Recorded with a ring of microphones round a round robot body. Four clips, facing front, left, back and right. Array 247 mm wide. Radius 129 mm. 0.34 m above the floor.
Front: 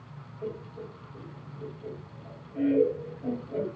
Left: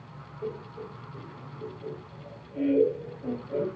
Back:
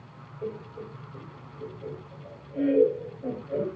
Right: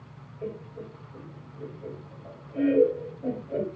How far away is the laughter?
About 2 m.